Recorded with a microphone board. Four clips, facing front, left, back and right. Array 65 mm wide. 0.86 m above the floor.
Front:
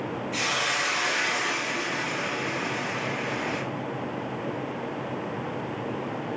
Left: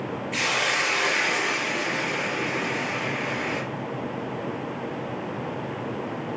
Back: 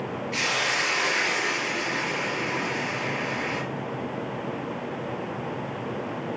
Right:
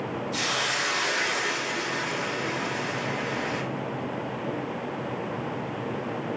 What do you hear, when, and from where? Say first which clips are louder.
0.3 s a hiss: left 5 dB, back 2 dB; 125° left, 4 m